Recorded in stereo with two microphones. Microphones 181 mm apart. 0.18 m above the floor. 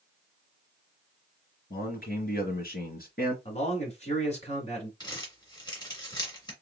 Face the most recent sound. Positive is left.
turn(degrees=25)  # may be behind; listen again after turning